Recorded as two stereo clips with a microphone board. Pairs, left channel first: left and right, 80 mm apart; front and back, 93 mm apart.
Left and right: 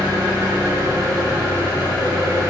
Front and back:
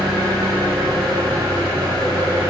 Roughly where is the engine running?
Behind right.